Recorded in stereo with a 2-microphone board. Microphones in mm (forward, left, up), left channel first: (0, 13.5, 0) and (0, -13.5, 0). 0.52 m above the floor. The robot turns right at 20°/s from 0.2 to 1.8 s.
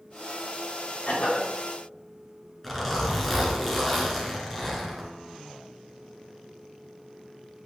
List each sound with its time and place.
1.1 s a cough: 60° left (ahead or behind), 3.5 m; by 1.5 s 65° left (ahead or behind), 3.5 m
2.6 s a zipper: 5° left (ahead or behind), 2.5 m